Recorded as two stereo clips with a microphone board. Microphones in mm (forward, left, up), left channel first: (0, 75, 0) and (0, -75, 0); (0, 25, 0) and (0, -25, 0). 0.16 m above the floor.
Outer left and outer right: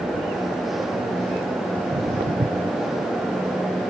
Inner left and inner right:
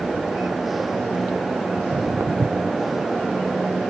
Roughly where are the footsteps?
Right.